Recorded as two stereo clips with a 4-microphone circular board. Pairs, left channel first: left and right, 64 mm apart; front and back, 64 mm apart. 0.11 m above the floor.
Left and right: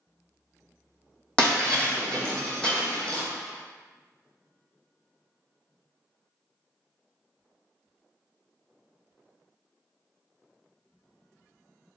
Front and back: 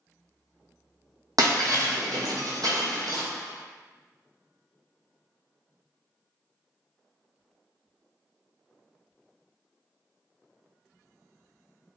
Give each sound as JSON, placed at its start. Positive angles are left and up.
{"t": 1.4, "sound": "breaking glass", "azimuth_deg": 160, "distance_m": 1.0}